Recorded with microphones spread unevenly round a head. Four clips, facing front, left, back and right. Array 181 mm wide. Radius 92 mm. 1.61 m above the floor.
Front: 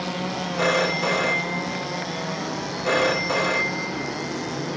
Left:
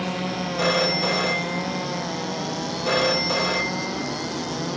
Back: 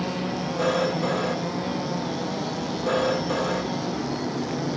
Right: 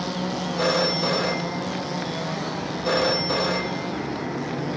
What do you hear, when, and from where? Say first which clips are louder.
0.6 s a phone ringing: even, front 1 dB; 20° right, 1.0 m